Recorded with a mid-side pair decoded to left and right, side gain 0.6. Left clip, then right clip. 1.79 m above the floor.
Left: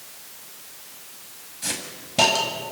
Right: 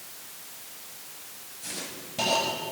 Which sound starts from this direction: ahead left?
A hiss, at 1.6 s.